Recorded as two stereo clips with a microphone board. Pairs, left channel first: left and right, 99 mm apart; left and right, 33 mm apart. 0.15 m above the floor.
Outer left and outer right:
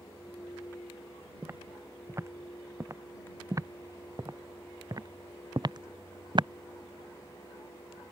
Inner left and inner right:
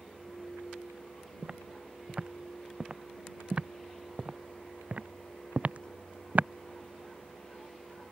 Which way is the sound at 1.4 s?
25° right (ahead or behind).